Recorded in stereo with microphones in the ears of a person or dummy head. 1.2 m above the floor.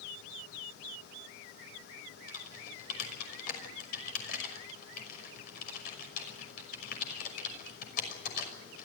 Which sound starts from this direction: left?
Typing on a keyboard, at 2.3 s.